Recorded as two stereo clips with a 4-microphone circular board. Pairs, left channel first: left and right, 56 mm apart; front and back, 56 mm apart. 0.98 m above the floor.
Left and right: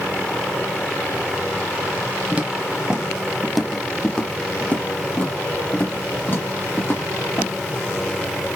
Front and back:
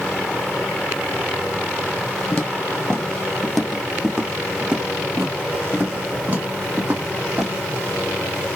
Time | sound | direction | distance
2.3 | footsteps | 45° right | 1.2 m